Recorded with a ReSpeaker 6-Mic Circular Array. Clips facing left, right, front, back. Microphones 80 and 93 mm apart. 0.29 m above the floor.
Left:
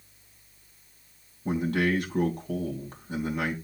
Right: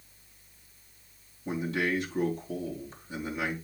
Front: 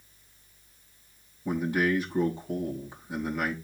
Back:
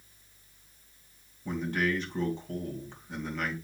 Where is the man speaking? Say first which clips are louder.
Left 4 dB, front 4 dB; 80° left, 2.5 m.